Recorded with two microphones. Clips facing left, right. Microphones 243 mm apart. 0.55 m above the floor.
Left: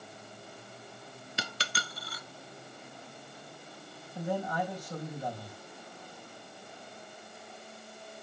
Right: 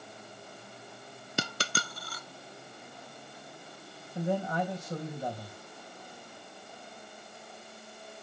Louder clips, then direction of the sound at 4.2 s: Right 2 dB; 25° right (ahead or behind).